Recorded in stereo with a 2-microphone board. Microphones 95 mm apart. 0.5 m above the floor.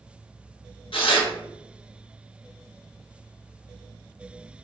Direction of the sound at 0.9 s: 65° left (ahead or behind).